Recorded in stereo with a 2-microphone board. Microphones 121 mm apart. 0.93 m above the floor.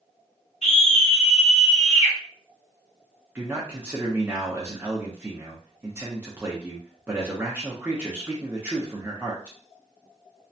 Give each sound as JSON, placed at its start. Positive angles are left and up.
{"t": 0.6, "sound": "a scream", "side_deg": 65, "distance_m": 0.7}
{"t": 3.4, "sound": "a man speaking", "side_deg": -15, "distance_m": 0.7}